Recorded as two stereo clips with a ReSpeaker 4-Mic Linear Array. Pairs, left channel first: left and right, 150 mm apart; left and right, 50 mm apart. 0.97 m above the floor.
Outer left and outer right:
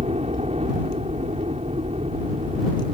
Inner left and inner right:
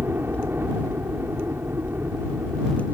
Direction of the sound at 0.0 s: 45° right (ahead or behind).